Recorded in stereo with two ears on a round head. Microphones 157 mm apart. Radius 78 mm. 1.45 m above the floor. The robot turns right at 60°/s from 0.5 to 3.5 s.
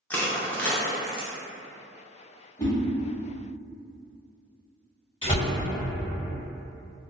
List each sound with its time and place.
0.1 s crushing: 10° left (ahead or behind), 0.5 m; by 1.3 s 10° right (ahead or behind), 0.5 m
2.6 s a whoosh: 15° left (ahead or behind), 0.8 m
5.2 s a door slam: 30° left (ahead or behind), 1.5 m